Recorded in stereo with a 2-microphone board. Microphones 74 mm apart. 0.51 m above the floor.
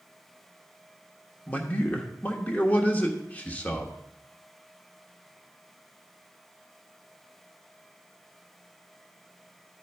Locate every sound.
1.5 s a man speaking: 20° left (ahead or behind), 1.0 m